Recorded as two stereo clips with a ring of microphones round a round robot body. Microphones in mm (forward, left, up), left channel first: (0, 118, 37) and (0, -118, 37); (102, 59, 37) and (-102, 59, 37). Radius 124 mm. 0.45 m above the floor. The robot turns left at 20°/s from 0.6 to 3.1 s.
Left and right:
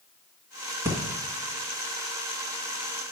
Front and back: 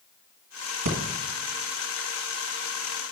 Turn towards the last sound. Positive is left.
turn(degrees=145)